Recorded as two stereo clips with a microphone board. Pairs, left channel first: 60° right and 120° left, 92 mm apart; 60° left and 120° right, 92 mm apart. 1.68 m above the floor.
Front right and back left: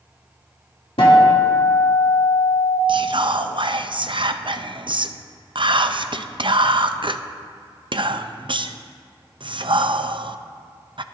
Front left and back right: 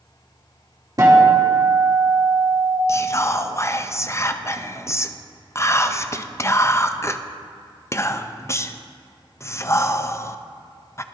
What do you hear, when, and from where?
1.0 s a guitar: 75° right, 2.5 m
2.9 s whispering: 110° left, 0.6 m